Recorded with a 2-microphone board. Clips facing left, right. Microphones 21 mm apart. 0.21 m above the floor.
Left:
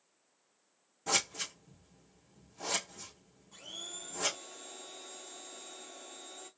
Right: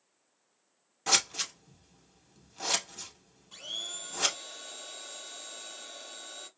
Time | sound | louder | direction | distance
1.1 | scissors | right 5 dB | 75° right (ahead or behind) | 1.9 m
3.5 | a blender | right 7 dB | 80° right | 2.5 m